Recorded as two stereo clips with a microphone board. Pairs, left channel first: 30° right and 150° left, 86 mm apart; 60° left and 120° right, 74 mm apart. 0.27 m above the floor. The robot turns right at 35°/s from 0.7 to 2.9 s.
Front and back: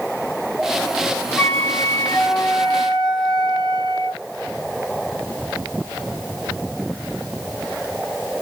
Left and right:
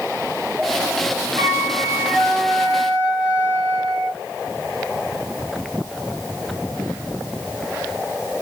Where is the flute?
105° right, 2 m; by 4.2 s 50° right, 2 m.